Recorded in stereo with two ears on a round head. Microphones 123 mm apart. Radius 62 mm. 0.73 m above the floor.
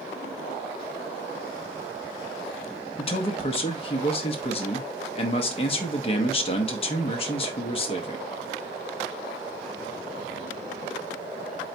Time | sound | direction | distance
3.0 | a man speaking | 40° left (ahead or behind) | 0.8 m